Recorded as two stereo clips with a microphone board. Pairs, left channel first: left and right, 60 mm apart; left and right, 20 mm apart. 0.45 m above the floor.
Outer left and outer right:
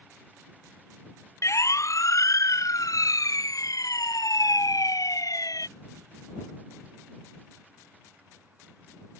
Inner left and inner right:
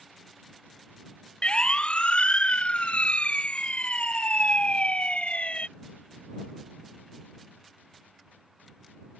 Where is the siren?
55° left (ahead or behind); by 5.7 s 80° left.